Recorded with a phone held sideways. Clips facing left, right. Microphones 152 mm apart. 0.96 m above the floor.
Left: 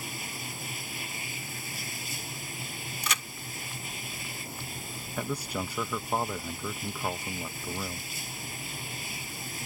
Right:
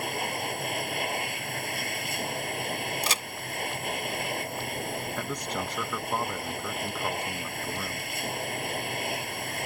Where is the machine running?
70° right (ahead or behind).